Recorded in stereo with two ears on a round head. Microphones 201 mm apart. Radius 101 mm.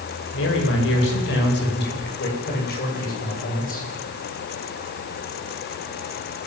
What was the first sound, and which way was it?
A man speaking, 60° left (ahead or behind).